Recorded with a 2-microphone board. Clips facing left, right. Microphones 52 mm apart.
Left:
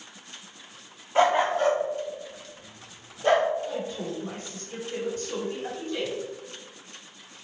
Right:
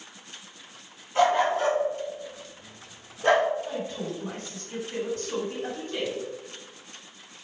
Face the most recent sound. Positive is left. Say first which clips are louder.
# even
turn(degrees=-40)  # may be behind; listen again after turning